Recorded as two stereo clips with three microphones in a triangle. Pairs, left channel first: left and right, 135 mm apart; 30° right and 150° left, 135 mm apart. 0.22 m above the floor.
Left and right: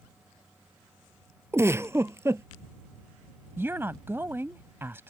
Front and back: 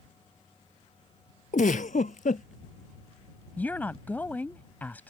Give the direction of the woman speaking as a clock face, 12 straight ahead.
2 o'clock.